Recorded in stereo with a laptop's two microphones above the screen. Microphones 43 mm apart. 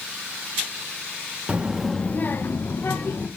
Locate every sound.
1.5 s a child speaking: 30° right (ahead or behind), 0.7 m; by 3.3 s 80° left, 1.6 m